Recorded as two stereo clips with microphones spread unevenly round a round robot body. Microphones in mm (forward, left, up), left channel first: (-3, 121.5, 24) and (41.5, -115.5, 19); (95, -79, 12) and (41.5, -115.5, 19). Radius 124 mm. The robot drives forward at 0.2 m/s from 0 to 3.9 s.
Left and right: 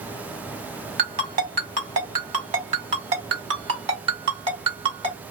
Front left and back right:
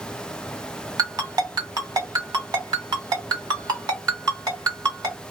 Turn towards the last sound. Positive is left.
turn(degrees=-150)